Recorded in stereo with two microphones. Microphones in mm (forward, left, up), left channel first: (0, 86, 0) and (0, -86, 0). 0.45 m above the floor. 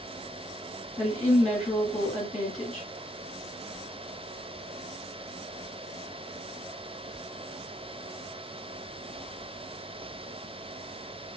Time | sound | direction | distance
1.0 | a woman speaking | 40° left (ahead or behind) | 1.4 m